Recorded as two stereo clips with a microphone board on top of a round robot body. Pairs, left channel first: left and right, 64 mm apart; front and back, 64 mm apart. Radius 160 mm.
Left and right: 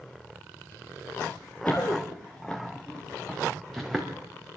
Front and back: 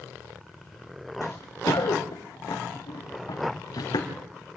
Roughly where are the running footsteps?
Ahead left.